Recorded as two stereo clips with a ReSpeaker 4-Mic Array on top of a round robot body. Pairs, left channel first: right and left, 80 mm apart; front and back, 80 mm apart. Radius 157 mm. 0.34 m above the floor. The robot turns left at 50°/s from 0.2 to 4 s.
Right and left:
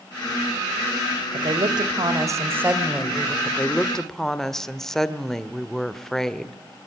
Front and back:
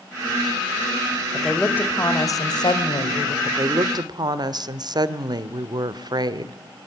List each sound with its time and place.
1.3 s a woman speaking: 90° left, 2.5 m; by 3.4 s 10° right, 2.5 m
3.5 s a woman speaking: 145° right, 1.5 m; by 6.5 s 175° right, 1.5 m